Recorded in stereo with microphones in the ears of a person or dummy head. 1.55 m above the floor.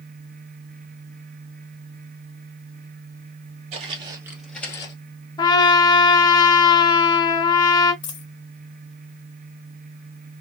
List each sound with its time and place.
3.7 s footsteps: 35° right (ahead or behind), 1.9 m; by 4.9 s 25° left (ahead or behind), 1.7 m
5.4 s a trumpet: 25° left (ahead or behind), 1.1 m
8.0 s a dropped coin: 25° left (ahead or behind), 1.2 m